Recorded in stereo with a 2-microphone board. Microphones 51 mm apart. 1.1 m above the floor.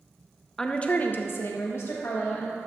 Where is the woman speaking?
10° left (ahead or behind), 0.8 m; by 2.6 s 55° left (ahead or behind), 1.9 m.